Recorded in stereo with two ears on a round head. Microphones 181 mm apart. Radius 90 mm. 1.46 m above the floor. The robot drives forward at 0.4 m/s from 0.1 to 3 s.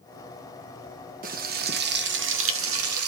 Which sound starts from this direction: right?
Frying, at 1.2 s.